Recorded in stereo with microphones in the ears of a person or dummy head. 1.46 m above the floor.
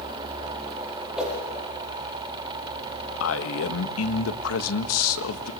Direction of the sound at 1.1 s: 5° right (ahead or behind).